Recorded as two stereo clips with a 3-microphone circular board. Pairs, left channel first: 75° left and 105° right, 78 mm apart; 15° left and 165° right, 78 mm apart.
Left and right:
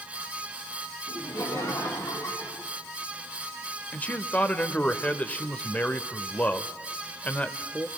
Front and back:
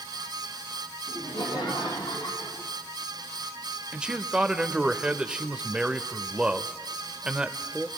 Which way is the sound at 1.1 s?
30° left.